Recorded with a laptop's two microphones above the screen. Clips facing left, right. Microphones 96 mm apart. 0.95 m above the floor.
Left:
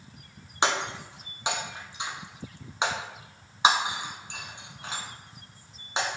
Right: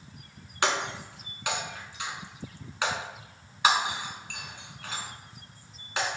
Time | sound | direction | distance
0.6 | breaking glass | 25° left (ahead or behind) | 0.9 m